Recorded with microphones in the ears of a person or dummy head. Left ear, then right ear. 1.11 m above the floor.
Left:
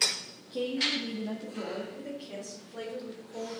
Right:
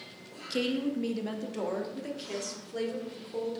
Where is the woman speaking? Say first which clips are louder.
Left 2 dB; 80° right, 0.9 m; by 3.6 s 65° right (ahead or behind), 3 m.